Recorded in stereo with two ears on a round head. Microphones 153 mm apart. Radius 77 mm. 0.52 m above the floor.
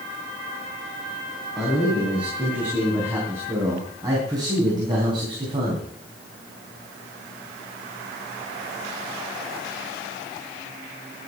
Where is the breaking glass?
No breaking glass in this recording.